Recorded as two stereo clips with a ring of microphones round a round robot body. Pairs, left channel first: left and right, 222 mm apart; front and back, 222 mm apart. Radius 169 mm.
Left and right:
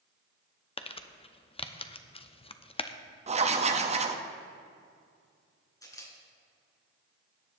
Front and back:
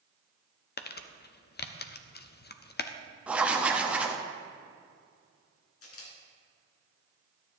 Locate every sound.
0.8 s crumpling: 30° left, 0.8 m
3.3 s writing: 100° right, 0.9 m
5.8 s a camera shutter: 15° left, 3.5 m